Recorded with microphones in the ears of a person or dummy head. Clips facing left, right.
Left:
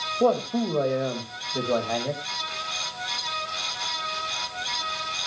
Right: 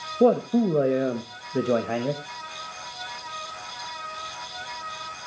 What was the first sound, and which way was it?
A man speaking, 30° right (ahead or behind).